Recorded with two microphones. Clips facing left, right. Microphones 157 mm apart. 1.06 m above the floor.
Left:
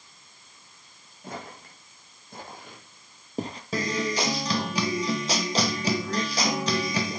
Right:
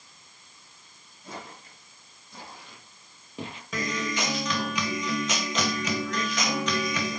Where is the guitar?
35° left (ahead or behind), 1.7 m.